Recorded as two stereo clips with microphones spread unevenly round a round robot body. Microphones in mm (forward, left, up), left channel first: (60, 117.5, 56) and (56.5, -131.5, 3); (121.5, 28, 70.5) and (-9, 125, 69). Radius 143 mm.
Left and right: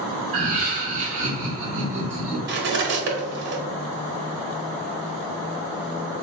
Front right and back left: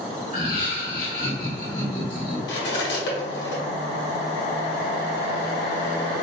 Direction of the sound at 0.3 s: 45° right.